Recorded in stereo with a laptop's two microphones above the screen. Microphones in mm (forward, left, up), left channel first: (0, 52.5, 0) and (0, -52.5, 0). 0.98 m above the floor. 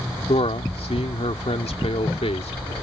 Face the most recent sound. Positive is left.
turn(degrees=75)  # may be behind; listen again after turning